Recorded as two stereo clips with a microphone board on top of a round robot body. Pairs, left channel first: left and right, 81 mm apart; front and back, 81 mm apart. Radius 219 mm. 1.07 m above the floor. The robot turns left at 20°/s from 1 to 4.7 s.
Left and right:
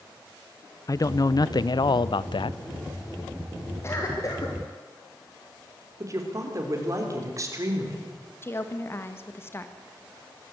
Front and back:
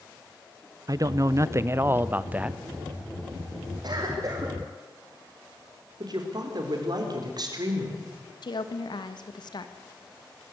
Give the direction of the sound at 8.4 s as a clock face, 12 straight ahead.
11 o'clock.